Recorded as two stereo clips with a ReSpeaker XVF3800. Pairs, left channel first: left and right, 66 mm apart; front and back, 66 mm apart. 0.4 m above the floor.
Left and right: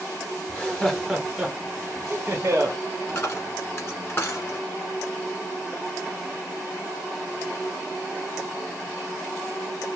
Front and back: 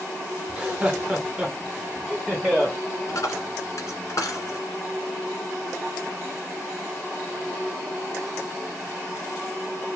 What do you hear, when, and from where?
0.5 s laughter: 135° left, 1.0 m; by 2.8 s 105° right, 1.3 m
3.1 s a dropped coin: 35° left, 1.9 m